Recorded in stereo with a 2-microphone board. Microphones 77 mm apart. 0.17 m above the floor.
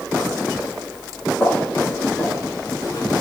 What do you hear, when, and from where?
1.4 s footsteps: 25° left (ahead or behind), 4.5 m; by 3.0 s 45° left (ahead or behind), 3.5 m